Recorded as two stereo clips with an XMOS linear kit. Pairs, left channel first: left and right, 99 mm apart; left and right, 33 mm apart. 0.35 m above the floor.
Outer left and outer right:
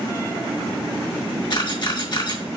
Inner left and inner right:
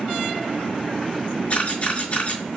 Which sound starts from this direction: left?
A camera shutter, at 1.5 s.